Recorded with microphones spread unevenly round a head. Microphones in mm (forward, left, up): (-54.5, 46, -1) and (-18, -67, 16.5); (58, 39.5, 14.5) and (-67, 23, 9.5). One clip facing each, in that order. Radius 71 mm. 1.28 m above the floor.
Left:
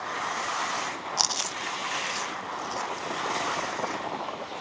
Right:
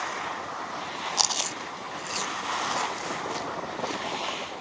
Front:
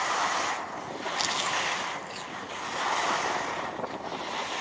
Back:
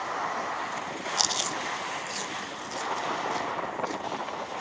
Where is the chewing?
140° right.